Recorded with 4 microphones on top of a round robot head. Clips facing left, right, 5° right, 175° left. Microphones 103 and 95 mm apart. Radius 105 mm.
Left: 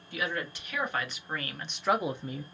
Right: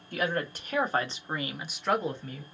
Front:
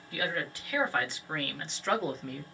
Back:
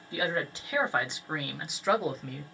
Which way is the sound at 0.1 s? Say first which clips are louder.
Right 4 dB, back 3 dB; 120° right.